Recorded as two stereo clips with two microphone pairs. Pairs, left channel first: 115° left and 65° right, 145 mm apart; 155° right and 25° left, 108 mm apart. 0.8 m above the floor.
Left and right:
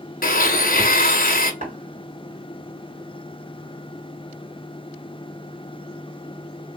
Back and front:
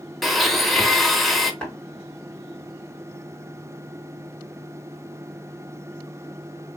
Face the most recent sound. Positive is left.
turn(degrees=-75)